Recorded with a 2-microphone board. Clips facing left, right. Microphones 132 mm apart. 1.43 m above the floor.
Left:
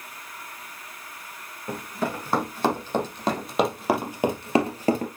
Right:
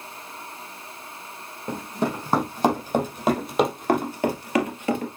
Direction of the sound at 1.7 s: 20° right (ahead or behind).